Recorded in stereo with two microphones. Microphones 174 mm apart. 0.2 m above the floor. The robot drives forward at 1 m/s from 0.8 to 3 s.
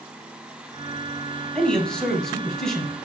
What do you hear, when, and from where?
1.6 s a man speaking: 5° left (ahead or behind), 1.4 m